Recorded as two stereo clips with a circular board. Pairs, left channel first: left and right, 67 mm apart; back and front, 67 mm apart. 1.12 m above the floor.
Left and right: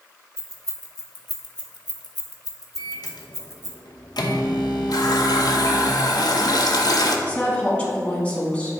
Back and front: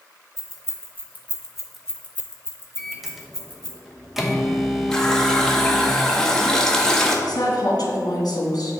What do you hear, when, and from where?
0.4 s keys jangling: 45° left, 1.2 m; by 3.8 s 150° left, 1.5 m
2.8 s a microwave: 85° left, 0.8 m
4.9 s a running tap: 100° left, 0.8 m
7.3 s a woman speaking: 155° left, 1.7 m